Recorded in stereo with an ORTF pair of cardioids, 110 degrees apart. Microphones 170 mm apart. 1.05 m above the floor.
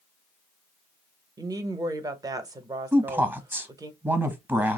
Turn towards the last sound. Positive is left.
turn(degrees=-10)